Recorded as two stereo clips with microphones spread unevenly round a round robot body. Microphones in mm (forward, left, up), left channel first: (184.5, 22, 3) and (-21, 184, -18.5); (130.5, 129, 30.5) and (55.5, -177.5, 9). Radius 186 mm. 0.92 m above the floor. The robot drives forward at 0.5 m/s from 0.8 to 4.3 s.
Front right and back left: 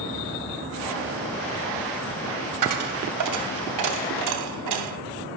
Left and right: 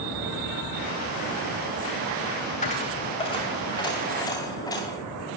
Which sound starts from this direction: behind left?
A dropped coin, at 2.6 s.